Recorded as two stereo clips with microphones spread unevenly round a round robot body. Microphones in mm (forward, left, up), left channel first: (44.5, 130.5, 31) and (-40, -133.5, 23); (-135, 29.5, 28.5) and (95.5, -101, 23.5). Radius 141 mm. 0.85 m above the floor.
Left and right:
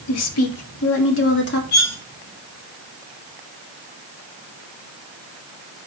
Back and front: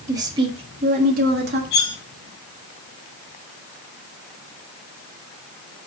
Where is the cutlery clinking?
125° left, 4 m.